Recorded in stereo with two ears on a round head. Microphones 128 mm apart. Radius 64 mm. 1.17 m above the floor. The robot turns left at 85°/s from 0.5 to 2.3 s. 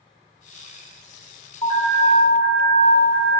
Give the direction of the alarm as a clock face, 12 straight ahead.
7 o'clock.